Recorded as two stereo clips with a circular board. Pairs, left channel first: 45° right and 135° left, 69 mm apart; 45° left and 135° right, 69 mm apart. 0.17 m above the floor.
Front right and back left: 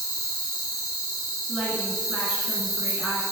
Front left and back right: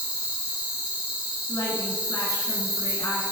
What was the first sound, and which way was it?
An insect, 60° right.